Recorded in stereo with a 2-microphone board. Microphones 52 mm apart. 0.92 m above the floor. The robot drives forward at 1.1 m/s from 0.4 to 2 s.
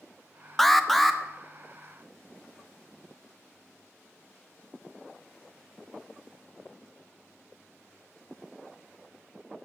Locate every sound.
0.6 s an alarm: 5° left (ahead or behind), 0.7 m